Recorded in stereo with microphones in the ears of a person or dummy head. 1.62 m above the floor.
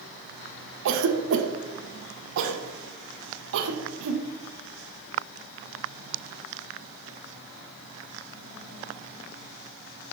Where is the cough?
70° right (ahead or behind), 1.1 m.